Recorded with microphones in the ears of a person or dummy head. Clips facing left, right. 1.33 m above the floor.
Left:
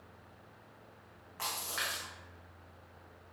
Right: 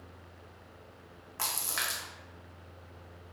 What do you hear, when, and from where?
1.4 s a splash: 50° right (ahead or behind), 0.9 m